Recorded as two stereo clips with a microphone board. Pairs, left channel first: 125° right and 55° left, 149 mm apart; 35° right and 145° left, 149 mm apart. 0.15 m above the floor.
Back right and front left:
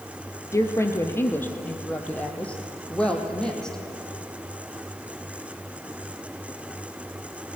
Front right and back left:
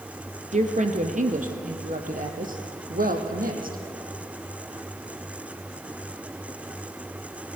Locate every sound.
0.5 s a woman speaking: 170° left, 2 m; by 3.8 s 150° left, 3.5 m